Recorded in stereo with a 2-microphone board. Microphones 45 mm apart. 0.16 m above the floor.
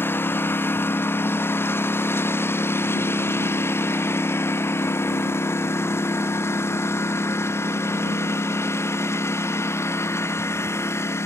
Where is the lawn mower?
55° left (ahead or behind); by 11.3 s 75° left (ahead or behind).